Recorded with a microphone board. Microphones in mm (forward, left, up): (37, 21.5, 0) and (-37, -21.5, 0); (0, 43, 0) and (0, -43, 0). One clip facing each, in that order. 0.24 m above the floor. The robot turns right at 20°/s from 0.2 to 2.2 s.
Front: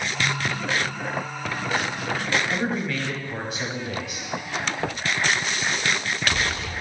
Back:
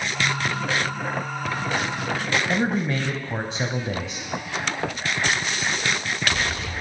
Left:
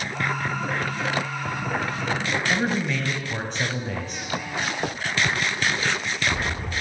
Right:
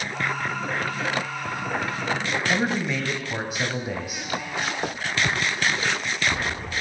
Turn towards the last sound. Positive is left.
turn(degrees=-165)